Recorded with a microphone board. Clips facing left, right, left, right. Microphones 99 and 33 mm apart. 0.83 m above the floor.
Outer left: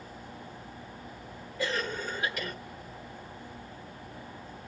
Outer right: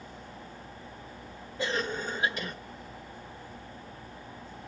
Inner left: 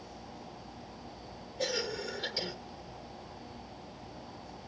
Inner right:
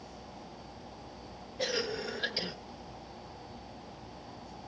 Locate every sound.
1.6 s a cough: 20° right (ahead or behind), 1.3 m